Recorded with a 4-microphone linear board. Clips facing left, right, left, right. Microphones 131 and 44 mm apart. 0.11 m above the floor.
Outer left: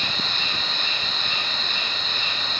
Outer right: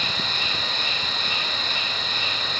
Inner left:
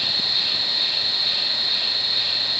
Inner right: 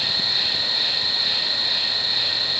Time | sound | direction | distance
0.0 | an insect | 40° right (ahead or behind) | 4.5 m